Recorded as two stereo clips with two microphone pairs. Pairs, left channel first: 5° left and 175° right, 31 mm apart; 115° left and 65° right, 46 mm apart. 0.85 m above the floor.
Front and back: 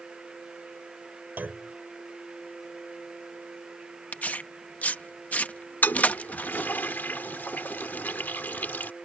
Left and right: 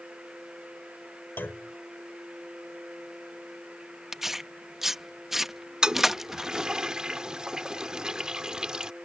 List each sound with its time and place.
1.4 s a clunk: 160° left
4.1 s tearing paper: 20° left
5.8 s a toilet flushing: 10° left